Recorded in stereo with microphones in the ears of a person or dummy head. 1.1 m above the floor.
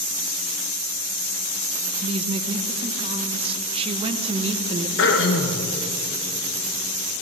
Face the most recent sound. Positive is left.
turn(degrees=55)  # may be behind; listen again after turning